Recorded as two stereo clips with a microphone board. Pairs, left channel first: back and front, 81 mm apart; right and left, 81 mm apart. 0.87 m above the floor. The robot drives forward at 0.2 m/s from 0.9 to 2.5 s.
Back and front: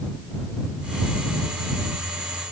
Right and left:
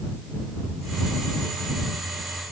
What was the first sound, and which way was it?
Only background noise.